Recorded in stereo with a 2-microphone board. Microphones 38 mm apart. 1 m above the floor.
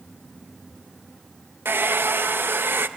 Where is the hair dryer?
70° right (ahead or behind), 0.8 m.